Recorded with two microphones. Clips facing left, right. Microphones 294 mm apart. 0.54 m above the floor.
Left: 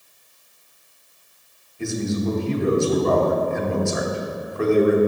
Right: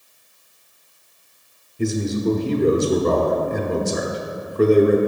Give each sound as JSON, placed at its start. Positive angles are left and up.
{"t": 1.8, "sound": "a man speaking", "side_deg": -40, "distance_m": 0.9}